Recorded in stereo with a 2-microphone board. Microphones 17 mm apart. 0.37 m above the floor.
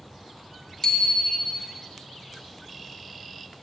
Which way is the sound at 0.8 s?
30° left (ahead or behind).